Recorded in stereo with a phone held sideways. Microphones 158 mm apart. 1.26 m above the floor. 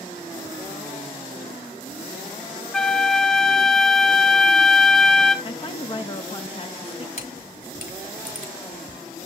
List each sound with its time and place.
2.7 s a flute: 5° left (ahead or behind), 0.8 m
5.5 s a woman speaking: 35° left (ahead or behind), 0.9 m
7.2 s a camera shutter: 65° left (ahead or behind), 2 m